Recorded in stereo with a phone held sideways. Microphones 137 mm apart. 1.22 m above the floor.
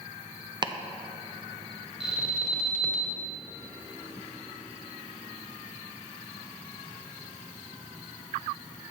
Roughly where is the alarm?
Centre.